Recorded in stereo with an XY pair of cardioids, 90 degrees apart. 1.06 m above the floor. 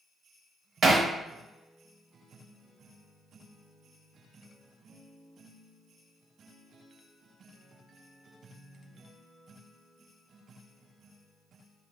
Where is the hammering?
60° right, 0.8 m.